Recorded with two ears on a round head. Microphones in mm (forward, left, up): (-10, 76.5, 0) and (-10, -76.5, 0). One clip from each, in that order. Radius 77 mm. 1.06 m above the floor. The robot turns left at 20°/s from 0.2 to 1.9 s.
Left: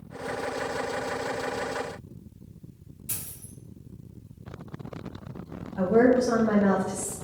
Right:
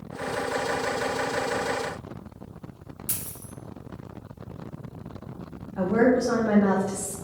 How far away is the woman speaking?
About 0.6 m.